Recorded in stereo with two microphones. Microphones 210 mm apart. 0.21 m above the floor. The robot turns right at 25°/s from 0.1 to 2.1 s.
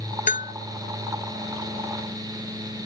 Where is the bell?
40° left (ahead or behind); by 0.6 s 45° left (ahead or behind).